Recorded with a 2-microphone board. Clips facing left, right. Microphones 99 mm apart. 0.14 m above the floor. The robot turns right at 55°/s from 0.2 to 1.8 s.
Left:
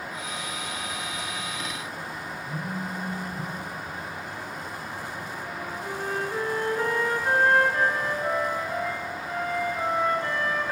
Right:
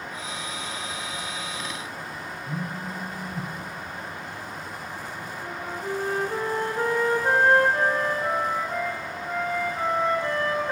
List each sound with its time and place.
2.5 s a phone buzzing: 65° right (ahead or behind), 2 m
5.4 s a flute: 35° right (ahead or behind), 0.6 m